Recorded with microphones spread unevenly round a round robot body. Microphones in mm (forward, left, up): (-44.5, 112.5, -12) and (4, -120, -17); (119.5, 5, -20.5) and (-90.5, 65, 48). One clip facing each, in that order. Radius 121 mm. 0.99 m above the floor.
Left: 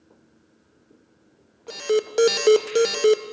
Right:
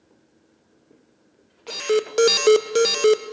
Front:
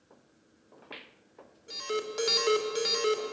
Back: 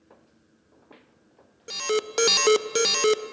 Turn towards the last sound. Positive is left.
turn(degrees=-165)